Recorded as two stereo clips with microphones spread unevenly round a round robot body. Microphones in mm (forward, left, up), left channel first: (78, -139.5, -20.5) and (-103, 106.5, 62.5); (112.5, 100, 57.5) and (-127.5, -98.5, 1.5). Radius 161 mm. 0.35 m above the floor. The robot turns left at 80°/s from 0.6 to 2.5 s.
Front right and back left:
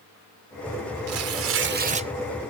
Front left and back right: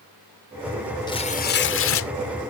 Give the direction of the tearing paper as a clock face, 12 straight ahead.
8 o'clock.